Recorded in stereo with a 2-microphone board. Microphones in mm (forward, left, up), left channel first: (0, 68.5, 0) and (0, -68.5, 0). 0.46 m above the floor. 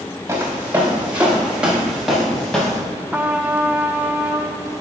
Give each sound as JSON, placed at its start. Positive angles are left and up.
{"t": 0.3, "sound": "footsteps", "side_deg": -20, "distance_m": 4.0}
{"t": 3.1, "sound": "a trumpet", "side_deg": -15, "distance_m": 0.7}